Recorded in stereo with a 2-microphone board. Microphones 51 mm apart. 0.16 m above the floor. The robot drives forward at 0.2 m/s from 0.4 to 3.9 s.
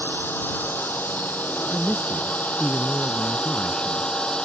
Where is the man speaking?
20° left (ahead or behind); by 4.1 s 25° left (ahead or behind).